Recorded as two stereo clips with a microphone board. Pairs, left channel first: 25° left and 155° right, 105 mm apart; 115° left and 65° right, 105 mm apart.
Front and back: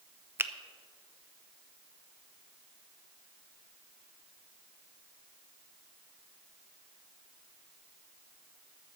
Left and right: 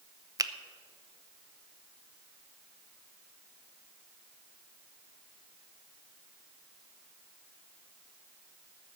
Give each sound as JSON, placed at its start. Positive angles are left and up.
{"t": 0.4, "sound": "a finger snap", "azimuth_deg": -100, "distance_m": 0.6}